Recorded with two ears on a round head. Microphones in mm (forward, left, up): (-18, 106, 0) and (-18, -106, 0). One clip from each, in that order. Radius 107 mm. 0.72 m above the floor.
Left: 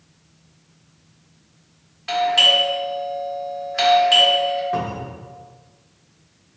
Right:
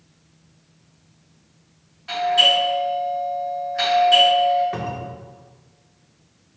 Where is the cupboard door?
15° right (ahead or behind), 0.6 m.